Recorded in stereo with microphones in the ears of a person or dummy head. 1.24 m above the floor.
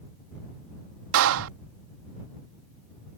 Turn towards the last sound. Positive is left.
turn(degrees=-80)